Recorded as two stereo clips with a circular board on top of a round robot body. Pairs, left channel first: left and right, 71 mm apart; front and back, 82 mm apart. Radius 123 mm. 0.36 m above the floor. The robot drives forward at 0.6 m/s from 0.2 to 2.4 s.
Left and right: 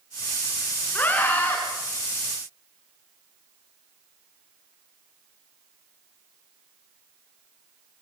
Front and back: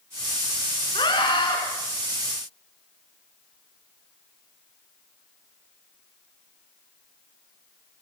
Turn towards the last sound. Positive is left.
turn(degrees=30)